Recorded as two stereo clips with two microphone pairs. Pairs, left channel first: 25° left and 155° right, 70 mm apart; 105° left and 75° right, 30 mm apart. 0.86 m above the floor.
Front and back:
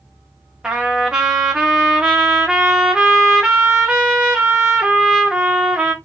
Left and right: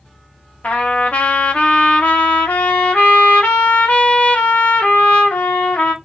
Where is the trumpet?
125° left, 1.1 m.